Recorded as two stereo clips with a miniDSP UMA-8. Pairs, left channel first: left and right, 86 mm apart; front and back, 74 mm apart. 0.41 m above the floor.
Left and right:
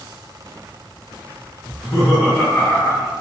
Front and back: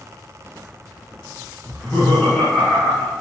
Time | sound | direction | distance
1.6 | laughter | 10° right | 1.2 m